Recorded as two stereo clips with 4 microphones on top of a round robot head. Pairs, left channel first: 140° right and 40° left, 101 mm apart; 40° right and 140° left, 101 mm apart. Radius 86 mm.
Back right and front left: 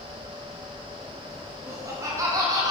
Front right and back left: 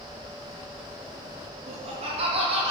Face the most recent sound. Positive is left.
turn(degrees=100)